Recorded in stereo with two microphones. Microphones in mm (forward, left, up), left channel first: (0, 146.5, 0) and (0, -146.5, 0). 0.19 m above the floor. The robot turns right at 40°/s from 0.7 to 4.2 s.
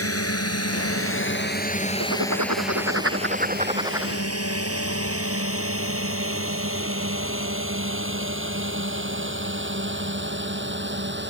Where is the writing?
90° right; by 4.1 s 5° right.